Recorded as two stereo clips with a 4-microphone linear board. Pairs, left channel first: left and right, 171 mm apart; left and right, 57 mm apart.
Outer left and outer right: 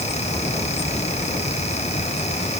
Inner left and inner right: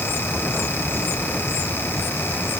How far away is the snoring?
I don't hear snoring.